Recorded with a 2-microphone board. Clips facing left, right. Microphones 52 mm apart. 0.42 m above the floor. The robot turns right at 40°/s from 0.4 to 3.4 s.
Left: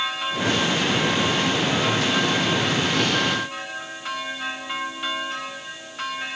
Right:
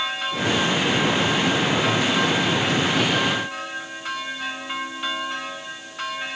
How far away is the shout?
No shout in this recording.